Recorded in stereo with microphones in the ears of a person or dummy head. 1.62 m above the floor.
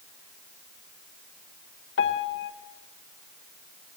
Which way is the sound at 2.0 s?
60° left (ahead or behind).